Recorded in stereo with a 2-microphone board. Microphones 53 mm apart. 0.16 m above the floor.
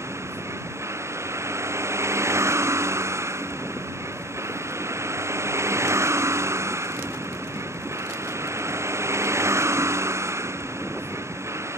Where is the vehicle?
60° right (ahead or behind).